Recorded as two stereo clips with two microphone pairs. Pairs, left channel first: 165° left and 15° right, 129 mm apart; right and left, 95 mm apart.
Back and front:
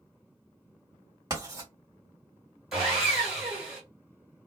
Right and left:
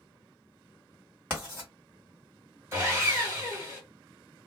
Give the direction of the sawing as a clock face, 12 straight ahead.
10 o'clock.